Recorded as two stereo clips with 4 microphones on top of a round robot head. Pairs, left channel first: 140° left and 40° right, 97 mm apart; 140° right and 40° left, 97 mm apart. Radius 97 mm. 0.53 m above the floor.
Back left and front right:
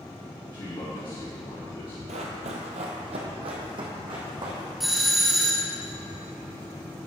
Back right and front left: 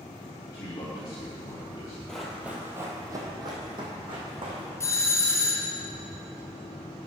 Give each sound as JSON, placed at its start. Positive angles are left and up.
{"t": 0.5, "sound": "a man speaking", "azimuth_deg": 175, "distance_m": 1.6}
{"t": 2.1, "sound": "running footsteps", "azimuth_deg": -55, "distance_m": 1.0}
{"t": 4.8, "sound": "a doorbell", "azimuth_deg": -125, "distance_m": 1.5}